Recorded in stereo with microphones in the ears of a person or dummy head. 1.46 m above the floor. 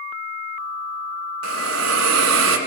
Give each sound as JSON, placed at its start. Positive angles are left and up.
{"t": 1.4, "sound": "a hiss", "side_deg": -80, "distance_m": 2.5}